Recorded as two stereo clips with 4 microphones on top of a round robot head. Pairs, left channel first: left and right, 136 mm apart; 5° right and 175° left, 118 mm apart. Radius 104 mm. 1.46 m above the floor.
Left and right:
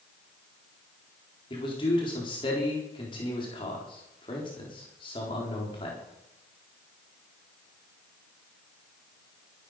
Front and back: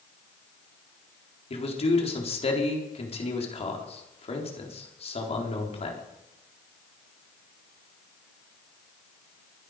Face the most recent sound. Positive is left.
turn(degrees=30)